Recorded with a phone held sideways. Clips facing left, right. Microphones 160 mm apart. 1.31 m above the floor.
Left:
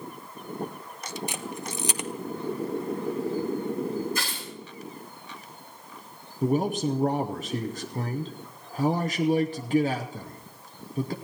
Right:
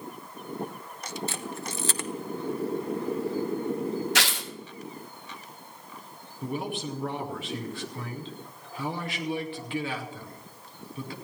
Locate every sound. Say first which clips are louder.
1.3 s a camera shutter: left 1 dB; 15° left (ahead or behind), 0.8 m
4.2 s tearing paper: right 3 dB; 85° right, 1.1 m
6.4 s a man speaking: left 8 dB; 40° left (ahead or behind), 0.8 m